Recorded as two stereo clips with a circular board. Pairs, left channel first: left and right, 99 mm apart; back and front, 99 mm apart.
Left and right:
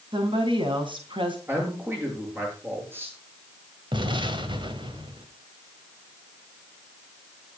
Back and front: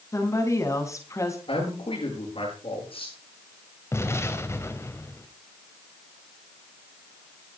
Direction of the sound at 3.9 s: 120° right.